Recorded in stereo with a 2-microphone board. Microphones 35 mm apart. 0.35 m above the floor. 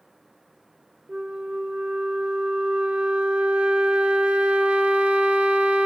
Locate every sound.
1.1 s a flute: 35° right (ahead or behind), 0.9 m